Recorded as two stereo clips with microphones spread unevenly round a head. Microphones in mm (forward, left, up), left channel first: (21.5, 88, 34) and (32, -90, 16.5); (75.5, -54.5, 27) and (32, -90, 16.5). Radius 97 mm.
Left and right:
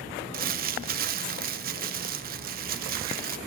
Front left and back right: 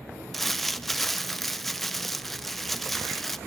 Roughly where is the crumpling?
Ahead right.